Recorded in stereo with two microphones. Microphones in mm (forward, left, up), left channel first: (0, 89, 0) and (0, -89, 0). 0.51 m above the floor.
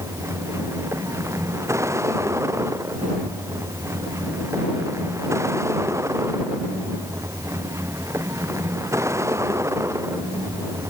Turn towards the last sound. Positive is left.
turn(degrees=-15)  # may be behind; listen again after turning